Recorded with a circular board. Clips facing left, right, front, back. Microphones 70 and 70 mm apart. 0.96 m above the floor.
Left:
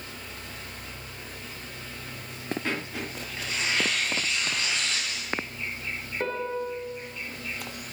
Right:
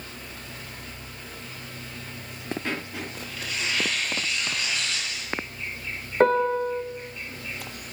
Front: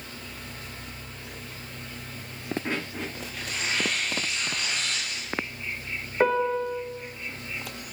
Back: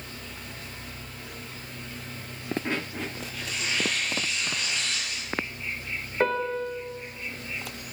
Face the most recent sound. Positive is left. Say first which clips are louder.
# right 10 dB, front 3 dB
turn(degrees=-80)